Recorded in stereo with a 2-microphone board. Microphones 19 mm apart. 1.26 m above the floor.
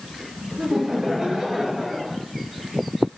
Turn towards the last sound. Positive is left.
turn(degrees=-30)  # may be behind; listen again after turning